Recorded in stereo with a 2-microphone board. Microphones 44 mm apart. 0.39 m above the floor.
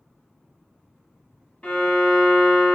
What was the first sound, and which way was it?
A violin, 40° left (ahead or behind).